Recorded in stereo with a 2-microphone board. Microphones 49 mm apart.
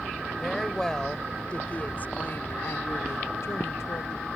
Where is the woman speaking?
5° left (ahead or behind); by 4.3 s 65° left (ahead or behind).